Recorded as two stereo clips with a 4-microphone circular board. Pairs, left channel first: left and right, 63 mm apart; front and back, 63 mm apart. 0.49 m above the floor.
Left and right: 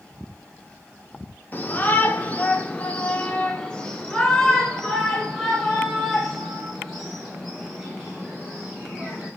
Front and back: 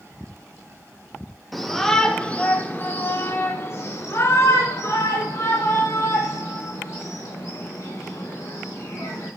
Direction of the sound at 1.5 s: 90° left.